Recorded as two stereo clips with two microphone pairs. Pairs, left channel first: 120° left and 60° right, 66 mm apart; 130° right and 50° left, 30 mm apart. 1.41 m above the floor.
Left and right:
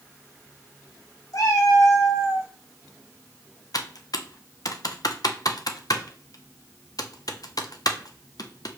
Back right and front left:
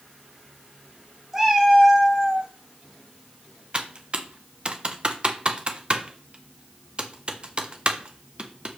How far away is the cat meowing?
About 2.5 m.